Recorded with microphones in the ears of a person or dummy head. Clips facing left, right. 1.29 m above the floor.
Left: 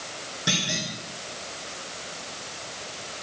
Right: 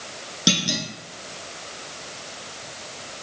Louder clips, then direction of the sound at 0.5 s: Right 6 dB; 55° right (ahead or behind).